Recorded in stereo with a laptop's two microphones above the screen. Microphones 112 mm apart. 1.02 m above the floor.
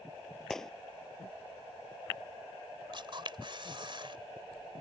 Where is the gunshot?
5° left (ahead or behind).